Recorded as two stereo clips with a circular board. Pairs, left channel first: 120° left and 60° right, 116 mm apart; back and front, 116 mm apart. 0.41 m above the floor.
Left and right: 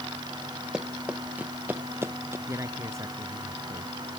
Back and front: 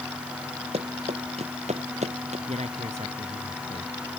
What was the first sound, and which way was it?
Running footsteps, 25° left.